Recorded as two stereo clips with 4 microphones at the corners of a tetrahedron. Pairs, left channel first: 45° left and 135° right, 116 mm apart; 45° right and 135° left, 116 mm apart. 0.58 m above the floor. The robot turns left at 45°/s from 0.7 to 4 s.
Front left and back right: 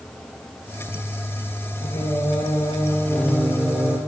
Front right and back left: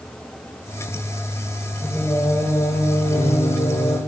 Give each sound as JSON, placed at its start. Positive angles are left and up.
{"t": 1.8, "sound": "singing", "azimuth_deg": 30, "distance_m": 1.8}